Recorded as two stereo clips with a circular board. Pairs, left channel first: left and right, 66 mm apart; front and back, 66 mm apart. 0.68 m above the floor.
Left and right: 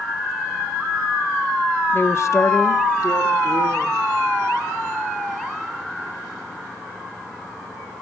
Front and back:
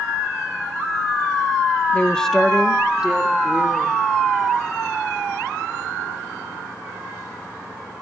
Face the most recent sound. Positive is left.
turn(degrees=110)